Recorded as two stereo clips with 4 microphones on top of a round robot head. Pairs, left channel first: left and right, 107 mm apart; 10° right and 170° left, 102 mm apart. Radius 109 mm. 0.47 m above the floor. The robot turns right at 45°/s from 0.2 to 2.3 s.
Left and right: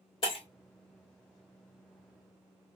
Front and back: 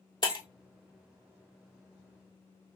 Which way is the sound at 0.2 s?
35° left.